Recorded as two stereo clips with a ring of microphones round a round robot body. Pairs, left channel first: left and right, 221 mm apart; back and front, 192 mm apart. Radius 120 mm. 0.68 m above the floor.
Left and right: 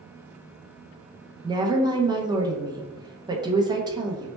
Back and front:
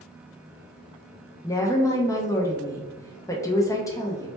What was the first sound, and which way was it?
A woman speaking, 130° right.